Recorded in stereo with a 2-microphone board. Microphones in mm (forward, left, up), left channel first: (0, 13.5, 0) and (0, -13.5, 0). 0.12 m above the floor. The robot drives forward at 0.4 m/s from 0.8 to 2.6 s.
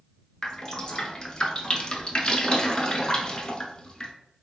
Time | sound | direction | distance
0.4 | dripping | 20° left (ahead or behind) | 0.7 m